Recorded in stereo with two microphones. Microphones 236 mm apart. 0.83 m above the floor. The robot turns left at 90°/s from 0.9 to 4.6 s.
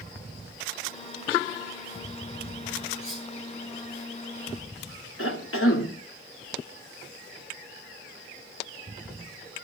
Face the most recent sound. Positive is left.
turn(degrees=70)  # may be behind; listen again after turning